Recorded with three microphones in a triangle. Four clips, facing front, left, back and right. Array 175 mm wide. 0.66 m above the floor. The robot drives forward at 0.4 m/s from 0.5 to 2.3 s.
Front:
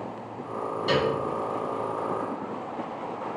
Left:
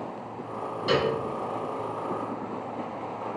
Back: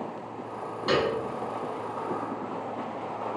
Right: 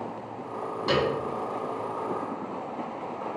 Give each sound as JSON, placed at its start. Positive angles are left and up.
{"t": 0.9, "sound": "a piano", "azimuth_deg": -120, "distance_m": 1.8}